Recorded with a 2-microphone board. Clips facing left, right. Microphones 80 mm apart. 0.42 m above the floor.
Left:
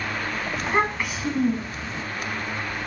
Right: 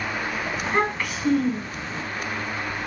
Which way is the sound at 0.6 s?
5° left (ahead or behind).